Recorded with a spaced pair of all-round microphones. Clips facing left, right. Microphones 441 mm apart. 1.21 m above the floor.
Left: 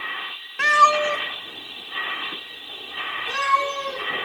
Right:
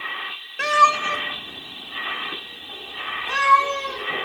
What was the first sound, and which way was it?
A cat meowing, 15° left (ahead or behind).